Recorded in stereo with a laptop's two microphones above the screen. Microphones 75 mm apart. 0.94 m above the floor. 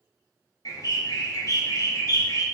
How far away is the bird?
About 0.8 m.